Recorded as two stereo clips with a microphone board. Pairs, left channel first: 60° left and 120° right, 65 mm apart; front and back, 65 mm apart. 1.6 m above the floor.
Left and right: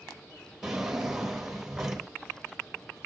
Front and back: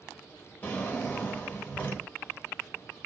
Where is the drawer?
45° right, 1.1 m.